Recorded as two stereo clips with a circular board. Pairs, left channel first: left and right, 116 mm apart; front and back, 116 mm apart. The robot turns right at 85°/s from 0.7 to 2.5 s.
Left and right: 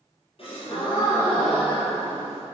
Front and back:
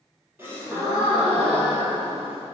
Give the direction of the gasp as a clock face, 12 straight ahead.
8 o'clock.